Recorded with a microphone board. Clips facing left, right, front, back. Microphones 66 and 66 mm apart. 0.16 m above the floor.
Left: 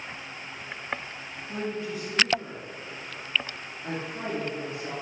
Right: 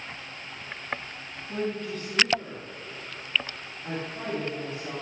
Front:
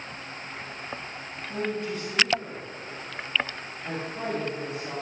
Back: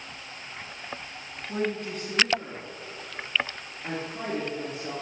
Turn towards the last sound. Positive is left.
turn(degrees=140)